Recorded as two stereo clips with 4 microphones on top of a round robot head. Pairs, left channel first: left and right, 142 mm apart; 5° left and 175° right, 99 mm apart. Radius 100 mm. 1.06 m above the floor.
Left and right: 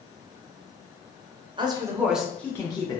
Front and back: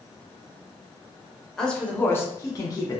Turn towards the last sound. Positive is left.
turn(degrees=45)